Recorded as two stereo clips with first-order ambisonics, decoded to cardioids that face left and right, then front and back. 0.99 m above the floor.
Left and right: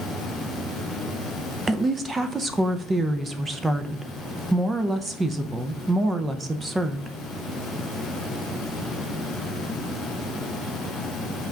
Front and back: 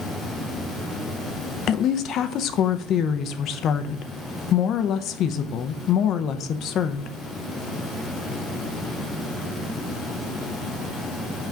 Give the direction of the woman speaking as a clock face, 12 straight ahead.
1 o'clock.